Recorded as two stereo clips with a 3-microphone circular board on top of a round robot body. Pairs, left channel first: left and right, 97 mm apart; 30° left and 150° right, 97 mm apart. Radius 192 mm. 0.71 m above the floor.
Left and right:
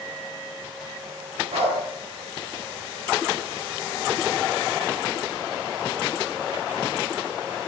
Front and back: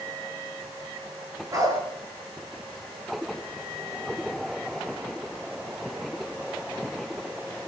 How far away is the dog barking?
About 7 m.